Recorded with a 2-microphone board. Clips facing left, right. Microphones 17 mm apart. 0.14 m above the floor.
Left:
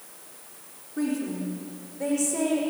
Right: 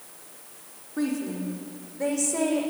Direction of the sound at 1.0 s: 30° right (ahead or behind).